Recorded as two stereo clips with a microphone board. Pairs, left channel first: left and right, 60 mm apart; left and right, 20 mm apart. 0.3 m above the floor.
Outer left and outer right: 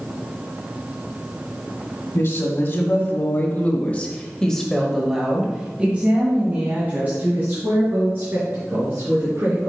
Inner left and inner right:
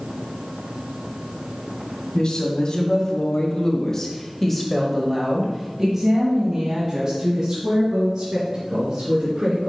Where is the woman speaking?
45° left (ahead or behind), 1.9 m; by 9.7 s 40° right (ahead or behind), 3.5 m.